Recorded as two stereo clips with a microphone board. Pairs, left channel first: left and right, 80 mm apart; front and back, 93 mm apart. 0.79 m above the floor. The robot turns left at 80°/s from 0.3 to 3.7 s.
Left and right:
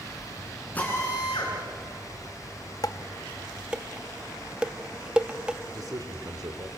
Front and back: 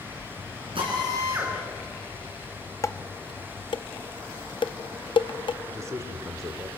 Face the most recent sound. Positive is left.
turn(degrees=-125)